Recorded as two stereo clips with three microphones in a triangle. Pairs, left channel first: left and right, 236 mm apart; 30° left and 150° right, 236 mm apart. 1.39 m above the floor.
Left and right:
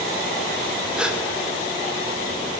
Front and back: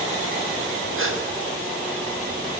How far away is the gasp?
About 0.9 m.